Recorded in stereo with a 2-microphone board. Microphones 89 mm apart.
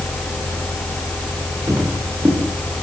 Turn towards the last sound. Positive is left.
turn(degrees=-30)  # may be behind; listen again after turning